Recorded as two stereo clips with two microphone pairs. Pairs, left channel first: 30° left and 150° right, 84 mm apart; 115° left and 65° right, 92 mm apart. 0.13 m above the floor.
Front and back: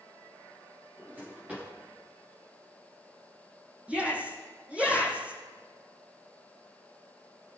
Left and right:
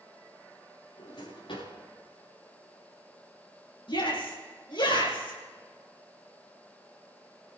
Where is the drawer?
140° left, 8.5 m.